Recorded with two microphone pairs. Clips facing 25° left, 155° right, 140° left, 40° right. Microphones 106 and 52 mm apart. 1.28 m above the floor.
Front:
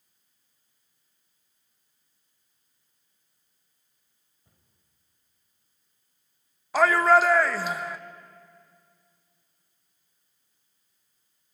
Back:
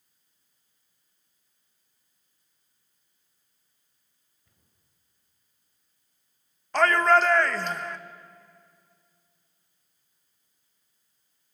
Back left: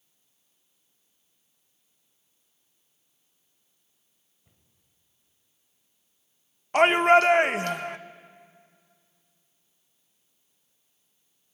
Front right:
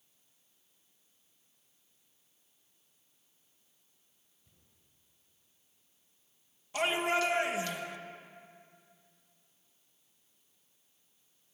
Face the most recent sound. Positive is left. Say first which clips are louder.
# front 1 dB, back left 13 dB
turn(degrees=110)